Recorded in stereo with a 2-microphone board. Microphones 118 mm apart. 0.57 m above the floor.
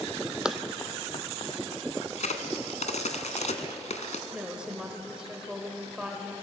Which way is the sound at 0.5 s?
5° right (ahead or behind).